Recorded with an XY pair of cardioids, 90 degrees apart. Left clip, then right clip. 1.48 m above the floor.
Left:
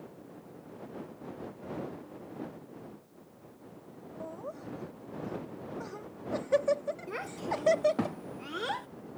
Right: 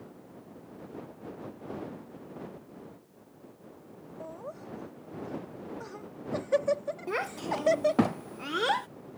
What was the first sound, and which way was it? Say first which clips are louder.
Laughter: even; 5° right.